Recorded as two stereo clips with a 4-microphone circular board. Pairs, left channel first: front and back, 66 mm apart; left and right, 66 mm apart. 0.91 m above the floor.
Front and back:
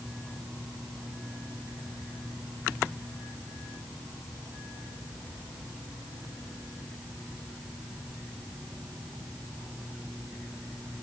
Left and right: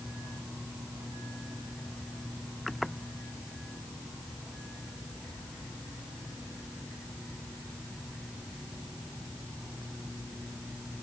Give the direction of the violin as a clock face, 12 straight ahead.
I don't hear a violin.